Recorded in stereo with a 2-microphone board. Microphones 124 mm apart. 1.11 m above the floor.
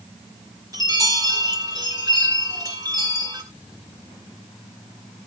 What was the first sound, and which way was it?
A chime, 30° right (ahead or behind).